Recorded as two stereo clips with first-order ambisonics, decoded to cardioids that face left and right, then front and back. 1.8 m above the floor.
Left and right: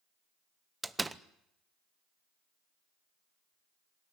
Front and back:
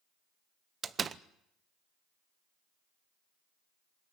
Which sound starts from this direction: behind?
A door slam, at 0.8 s.